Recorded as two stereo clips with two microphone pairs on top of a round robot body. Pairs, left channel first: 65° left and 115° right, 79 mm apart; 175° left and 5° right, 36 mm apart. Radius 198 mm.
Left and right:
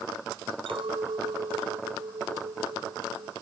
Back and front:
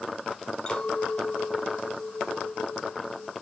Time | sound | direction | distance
0.7 | a clink | 115° right | ?